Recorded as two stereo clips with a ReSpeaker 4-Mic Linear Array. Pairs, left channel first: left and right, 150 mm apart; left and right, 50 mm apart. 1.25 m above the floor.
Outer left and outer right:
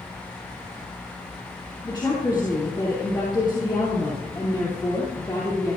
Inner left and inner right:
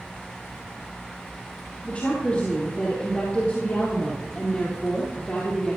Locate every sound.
1.8 s a woman speaking: 30° left (ahead or behind), 3 m